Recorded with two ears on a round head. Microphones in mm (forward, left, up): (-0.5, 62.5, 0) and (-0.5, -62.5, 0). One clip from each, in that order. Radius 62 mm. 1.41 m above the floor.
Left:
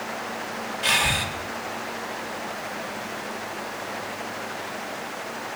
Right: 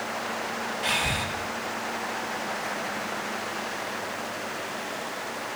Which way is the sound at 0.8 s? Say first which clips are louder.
Left 5 dB; 25° left (ahead or behind).